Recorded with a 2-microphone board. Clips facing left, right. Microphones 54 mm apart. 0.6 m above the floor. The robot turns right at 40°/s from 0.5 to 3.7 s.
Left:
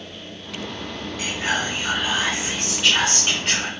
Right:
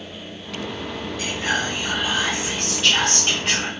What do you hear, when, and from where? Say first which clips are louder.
1.2 s whispering: even; 90° left, 1.0 m; by 3.7 s 170° right, 1.0 m